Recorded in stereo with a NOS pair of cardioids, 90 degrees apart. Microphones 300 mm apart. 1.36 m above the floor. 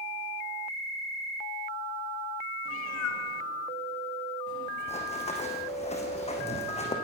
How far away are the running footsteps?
About 5 m.